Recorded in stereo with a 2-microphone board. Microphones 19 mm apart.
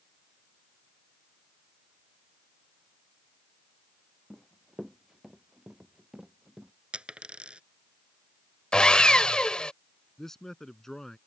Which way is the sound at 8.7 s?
50° left (ahead or behind).